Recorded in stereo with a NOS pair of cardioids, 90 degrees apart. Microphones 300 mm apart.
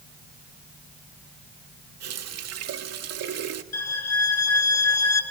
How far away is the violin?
About 4.5 m.